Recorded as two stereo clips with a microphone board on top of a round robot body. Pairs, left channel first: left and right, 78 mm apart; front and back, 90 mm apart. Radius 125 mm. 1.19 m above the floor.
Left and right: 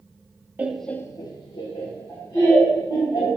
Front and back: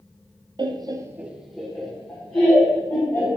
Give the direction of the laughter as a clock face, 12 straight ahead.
5 o'clock.